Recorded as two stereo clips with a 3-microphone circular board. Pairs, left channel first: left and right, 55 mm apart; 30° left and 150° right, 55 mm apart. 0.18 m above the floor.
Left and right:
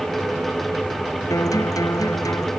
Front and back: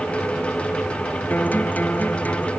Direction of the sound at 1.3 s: 90° left.